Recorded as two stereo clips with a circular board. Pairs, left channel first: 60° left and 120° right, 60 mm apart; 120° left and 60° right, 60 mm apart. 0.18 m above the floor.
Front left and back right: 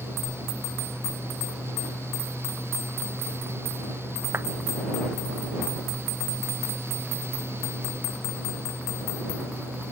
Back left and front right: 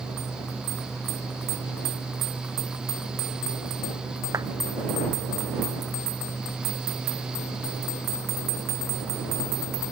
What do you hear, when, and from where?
4.3 s a clap: 75° right